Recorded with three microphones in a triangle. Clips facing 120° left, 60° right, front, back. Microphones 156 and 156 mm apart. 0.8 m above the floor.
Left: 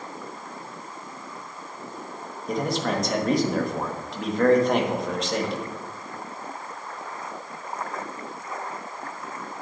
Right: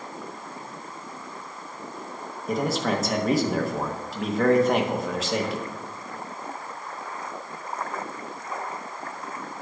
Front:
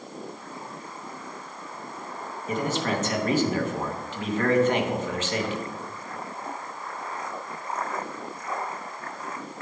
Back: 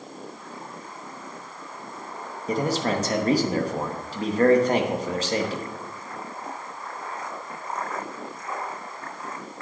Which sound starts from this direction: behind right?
A man speaking, at 2.5 s.